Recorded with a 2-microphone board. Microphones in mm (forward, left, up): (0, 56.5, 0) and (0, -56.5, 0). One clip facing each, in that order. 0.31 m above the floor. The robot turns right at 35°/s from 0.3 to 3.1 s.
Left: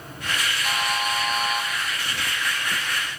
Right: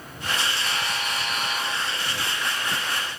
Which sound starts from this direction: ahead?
A buzzer, at 0.6 s.